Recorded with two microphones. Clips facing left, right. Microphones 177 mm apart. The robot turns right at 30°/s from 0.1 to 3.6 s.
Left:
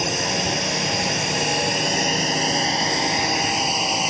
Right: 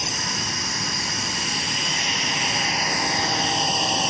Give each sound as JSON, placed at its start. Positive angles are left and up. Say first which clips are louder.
{"t": 0.0, "sound": "a drone", "louder": "left 8 dB", "azimuth_deg": 70}